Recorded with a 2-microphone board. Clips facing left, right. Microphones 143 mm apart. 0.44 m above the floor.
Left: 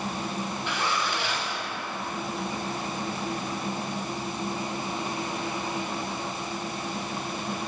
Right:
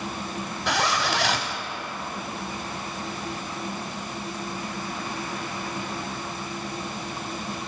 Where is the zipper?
85° right, 0.7 m.